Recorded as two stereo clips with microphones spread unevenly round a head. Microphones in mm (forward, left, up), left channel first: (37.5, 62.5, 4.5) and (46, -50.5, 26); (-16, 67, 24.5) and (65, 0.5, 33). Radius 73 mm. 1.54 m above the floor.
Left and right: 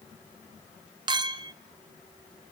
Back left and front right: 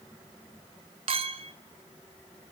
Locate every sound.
1.1 s a clink: 65° right, 1.0 m